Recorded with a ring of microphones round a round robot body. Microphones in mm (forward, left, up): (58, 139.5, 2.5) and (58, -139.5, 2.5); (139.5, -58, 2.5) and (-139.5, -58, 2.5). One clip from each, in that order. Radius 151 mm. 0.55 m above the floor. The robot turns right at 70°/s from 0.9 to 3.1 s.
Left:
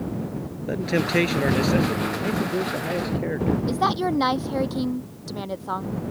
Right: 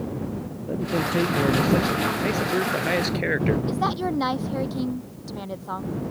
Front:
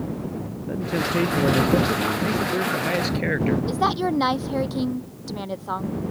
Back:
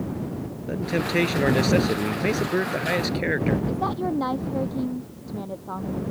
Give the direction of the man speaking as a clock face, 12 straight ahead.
8 o'clock.